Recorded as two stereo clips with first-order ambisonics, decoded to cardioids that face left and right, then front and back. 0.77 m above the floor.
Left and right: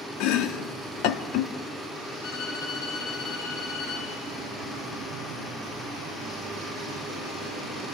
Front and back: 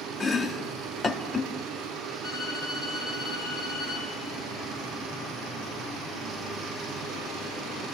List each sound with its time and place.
0.2 s chopping: 75° left, 1.0 m
2.2 s a violin: 70° left, 7 m